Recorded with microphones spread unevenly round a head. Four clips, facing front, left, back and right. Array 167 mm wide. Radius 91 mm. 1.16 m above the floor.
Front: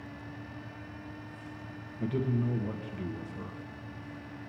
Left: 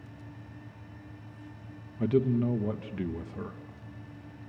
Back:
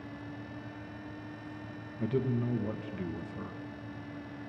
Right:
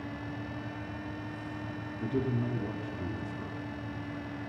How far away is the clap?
No clap in this recording.